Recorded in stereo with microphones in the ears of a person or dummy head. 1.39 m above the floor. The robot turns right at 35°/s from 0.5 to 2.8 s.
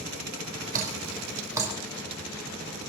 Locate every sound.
0.7 s dripping: 45° right (ahead or behind), 3.5 m; by 1.7 s 10° right (ahead or behind), 3.5 m